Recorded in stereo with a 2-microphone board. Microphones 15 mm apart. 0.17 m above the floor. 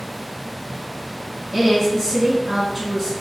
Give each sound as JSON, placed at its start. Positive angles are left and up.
{"t": 1.5, "sound": "a woman speaking", "side_deg": -35, "distance_m": 1.2}